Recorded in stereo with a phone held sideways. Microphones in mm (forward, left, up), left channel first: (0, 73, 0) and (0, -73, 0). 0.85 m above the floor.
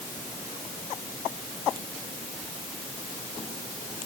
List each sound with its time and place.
Only background noise.